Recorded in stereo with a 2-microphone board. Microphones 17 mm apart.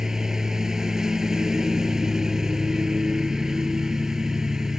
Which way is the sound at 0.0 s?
35° right (ahead or behind).